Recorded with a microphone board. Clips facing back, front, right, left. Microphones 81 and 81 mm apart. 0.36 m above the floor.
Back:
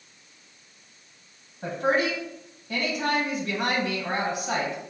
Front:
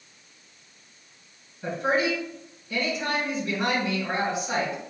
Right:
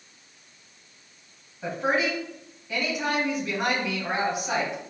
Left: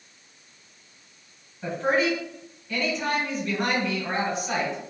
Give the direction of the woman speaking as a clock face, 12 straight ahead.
6 o'clock.